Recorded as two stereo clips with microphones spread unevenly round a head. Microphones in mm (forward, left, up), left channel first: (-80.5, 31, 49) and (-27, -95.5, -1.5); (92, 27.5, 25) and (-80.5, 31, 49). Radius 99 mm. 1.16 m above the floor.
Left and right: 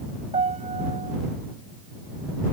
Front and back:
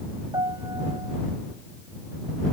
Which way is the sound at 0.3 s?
110° right.